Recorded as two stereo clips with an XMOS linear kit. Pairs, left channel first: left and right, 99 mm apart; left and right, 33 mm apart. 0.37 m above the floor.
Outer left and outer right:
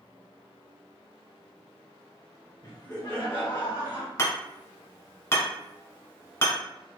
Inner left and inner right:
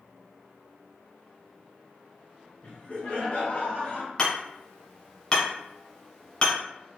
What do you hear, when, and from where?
2.6 s laughter: 45° left (ahead or behind), 1.9 m; by 4.1 s 60° left (ahead or behind), 2.5 m
4.2 s hammering: 30° left (ahead or behind), 1.5 m